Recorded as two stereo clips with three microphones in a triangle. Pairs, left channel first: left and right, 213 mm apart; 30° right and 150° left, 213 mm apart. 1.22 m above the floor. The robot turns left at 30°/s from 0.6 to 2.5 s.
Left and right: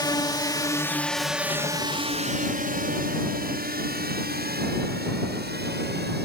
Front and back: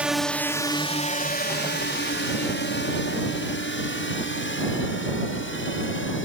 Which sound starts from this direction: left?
A drone, at 0.0 s.